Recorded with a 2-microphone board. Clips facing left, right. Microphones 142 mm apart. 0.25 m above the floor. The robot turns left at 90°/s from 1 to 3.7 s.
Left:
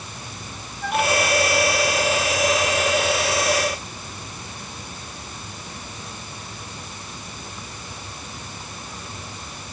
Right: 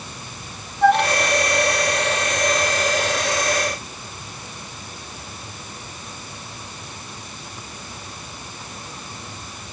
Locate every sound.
0.8 s a flute: 65° right (ahead or behind); by 1.1 s 50° right (ahead or behind)